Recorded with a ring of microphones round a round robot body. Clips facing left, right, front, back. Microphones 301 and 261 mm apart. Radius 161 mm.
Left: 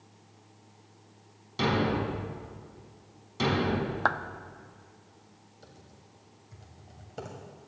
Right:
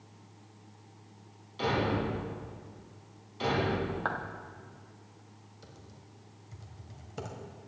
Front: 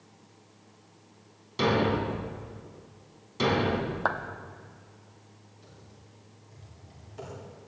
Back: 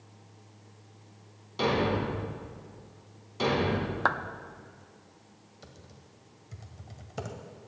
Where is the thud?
65° left, 3.5 m.